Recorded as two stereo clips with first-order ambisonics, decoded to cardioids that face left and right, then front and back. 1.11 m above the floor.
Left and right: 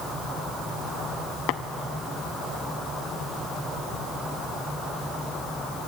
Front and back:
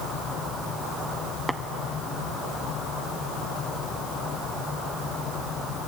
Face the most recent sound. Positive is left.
turn(degrees=90)